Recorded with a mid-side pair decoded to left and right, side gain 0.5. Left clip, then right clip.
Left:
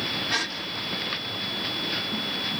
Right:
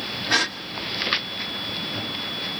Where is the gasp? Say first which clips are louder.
Right 9 dB; 50° right, 2.0 m.